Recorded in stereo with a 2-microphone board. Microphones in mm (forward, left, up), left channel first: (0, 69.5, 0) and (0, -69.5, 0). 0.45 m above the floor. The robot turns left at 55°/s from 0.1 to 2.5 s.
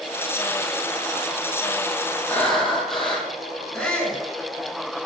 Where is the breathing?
15° left (ahead or behind), 4 m; by 3.3 s centre (ahead or behind), 4 m.